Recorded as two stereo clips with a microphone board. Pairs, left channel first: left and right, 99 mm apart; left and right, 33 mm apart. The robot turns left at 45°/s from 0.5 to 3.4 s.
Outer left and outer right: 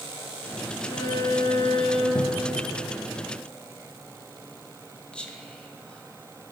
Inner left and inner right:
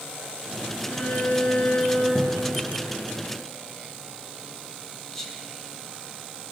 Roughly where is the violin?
Behind left.